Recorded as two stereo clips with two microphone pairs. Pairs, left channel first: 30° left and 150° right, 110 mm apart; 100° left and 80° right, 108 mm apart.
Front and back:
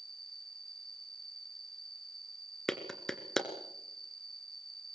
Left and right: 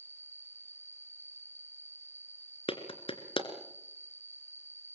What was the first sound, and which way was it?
An insect, 35° left.